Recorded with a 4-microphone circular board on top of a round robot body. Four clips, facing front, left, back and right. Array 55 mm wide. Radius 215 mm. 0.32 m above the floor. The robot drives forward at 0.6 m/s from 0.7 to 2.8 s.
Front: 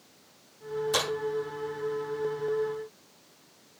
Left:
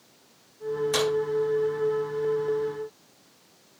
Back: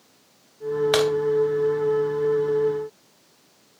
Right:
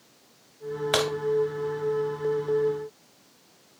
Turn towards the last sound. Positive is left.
turn(degrees=-165)